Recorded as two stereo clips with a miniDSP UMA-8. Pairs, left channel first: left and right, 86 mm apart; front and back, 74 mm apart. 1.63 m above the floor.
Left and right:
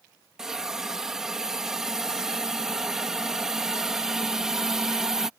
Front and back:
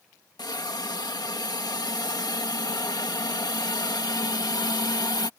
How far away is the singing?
No singing in this recording.